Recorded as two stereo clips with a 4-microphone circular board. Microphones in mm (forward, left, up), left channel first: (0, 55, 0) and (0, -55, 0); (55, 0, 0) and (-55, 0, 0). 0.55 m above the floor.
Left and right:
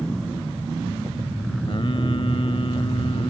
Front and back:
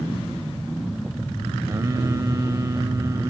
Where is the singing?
125° left.